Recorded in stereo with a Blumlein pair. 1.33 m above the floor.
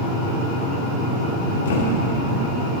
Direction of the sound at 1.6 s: 55° left.